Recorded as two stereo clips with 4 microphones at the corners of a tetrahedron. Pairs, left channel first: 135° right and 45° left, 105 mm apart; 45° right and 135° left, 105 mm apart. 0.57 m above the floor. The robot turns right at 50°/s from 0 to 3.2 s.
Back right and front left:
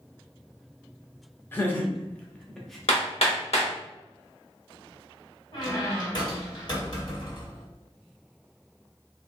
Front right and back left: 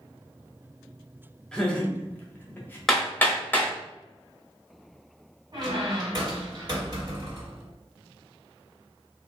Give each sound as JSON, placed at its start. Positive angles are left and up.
{"t": 1.5, "sound": "laughter", "azimuth_deg": -110, "distance_m": 0.7}
{"t": 2.9, "sound": "hammering", "azimuth_deg": -135, "distance_m": 0.9}
{"t": 5.5, "sound": "a squeak", "azimuth_deg": 180, "distance_m": 1.2}